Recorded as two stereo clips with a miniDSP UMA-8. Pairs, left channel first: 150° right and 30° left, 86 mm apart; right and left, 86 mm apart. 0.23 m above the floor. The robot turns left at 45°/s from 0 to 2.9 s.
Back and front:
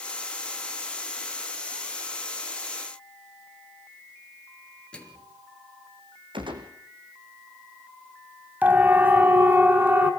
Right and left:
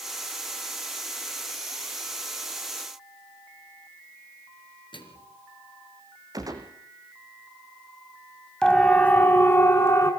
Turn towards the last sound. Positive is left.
turn(degrees=-35)